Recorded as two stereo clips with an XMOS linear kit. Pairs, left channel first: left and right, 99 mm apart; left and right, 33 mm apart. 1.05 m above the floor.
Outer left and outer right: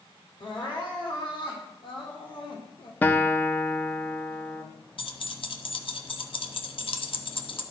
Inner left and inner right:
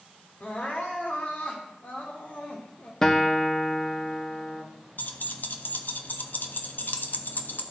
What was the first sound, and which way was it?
Crying, 60° left (ahead or behind).